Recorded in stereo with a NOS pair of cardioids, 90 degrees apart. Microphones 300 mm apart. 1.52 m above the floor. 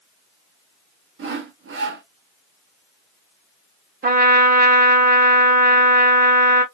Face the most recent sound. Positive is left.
turn(degrees=-30)